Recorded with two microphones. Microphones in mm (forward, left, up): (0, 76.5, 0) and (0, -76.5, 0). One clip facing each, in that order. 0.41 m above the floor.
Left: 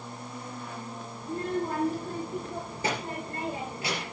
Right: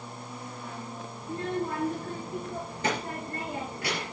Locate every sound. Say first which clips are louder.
1.2 s a child speaking: left 1 dB; 10° left (ahead or behind), 3 m